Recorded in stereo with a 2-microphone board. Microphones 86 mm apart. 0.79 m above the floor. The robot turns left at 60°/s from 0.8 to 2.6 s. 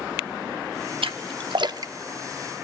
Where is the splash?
85° right, 0.7 m; by 1.9 s 40° right (ahead or behind), 0.7 m.